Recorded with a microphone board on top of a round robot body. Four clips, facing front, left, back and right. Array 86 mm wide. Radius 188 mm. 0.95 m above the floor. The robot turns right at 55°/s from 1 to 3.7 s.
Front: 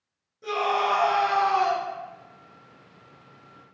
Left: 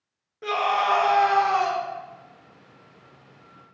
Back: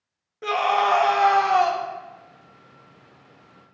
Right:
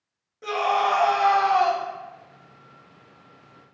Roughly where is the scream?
Behind.